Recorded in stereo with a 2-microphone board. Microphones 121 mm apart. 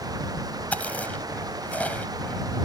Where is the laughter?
I don't hear laughter.